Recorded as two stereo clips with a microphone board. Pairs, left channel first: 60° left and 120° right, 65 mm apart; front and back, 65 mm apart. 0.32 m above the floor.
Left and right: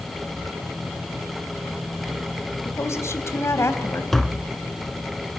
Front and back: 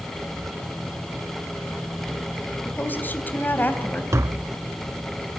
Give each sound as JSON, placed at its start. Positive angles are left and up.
{"t": 2.6, "sound": "a woman speaking", "azimuth_deg": 45, "distance_m": 2.5}
{"t": 4.1, "sound": "tapping", "azimuth_deg": 145, "distance_m": 0.5}